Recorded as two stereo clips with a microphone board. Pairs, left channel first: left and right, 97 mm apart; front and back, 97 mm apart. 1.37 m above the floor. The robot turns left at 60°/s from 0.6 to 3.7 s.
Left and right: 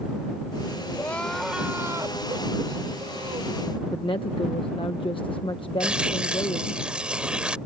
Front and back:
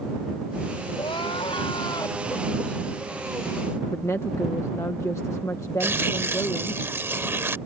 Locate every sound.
0.9 s crying: 25° left; by 3.6 s 130° right
3.9 s a woman speaking: 60° left
5.8 s tearing paper: 160° right